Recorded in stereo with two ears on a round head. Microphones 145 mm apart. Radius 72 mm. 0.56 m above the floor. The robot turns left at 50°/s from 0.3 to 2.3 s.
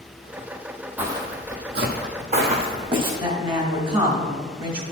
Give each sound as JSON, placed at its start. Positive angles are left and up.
{"t": 1.0, "sound": "footsteps", "side_deg": -10, "distance_m": 1.0}
{"t": 3.2, "sound": "a woman speaking", "side_deg": -35, "distance_m": 1.9}